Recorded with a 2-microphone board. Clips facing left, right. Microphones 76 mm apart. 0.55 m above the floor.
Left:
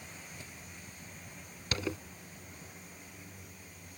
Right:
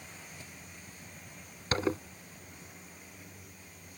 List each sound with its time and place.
1.7 s a zipper: 40° right (ahead or behind)